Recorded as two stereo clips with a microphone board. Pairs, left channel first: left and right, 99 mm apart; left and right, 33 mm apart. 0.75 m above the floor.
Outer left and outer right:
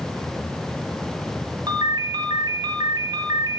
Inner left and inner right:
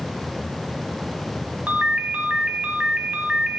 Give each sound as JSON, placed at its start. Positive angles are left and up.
{"t": 1.7, "sound": "a ringtone", "side_deg": -45, "distance_m": 2.5}